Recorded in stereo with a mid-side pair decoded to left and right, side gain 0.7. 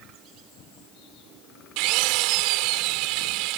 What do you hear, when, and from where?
1.8 s a drill: 70° right